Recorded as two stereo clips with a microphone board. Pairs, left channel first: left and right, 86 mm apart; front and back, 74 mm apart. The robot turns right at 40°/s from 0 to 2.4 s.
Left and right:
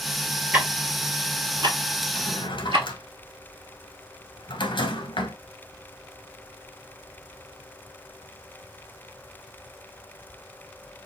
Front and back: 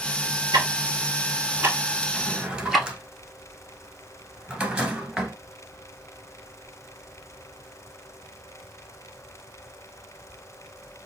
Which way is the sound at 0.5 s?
165° right.